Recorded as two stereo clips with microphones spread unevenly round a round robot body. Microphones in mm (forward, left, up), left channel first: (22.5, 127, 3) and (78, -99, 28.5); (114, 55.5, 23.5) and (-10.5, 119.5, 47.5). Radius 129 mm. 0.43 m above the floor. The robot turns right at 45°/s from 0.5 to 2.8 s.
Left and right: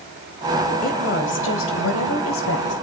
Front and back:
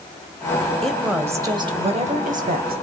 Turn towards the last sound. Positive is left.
turn(degrees=145)